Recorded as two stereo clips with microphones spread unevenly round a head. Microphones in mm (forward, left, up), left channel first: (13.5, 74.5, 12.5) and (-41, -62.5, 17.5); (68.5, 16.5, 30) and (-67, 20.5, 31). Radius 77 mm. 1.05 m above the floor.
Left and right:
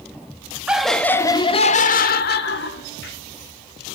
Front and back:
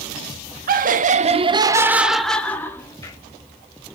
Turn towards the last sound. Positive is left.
turn(degrees=65)